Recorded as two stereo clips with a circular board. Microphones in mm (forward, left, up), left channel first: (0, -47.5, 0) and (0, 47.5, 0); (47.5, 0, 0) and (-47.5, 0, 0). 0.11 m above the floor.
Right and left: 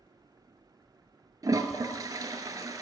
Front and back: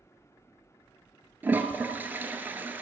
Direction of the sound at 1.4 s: 120° left.